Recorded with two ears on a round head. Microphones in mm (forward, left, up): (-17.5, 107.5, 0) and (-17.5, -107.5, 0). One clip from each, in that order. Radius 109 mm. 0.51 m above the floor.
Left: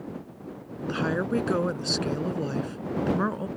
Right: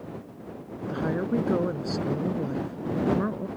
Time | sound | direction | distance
0.9 | a woman speaking | 80° left | ?